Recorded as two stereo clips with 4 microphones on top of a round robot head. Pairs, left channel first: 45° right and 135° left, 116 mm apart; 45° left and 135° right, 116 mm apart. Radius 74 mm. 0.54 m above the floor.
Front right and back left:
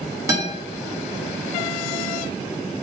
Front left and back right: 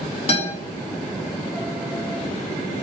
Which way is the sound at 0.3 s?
75° left.